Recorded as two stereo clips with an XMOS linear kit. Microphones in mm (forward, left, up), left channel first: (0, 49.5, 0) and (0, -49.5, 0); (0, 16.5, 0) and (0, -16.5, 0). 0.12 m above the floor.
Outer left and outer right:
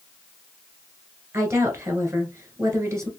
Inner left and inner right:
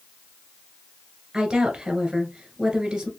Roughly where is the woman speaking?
Right.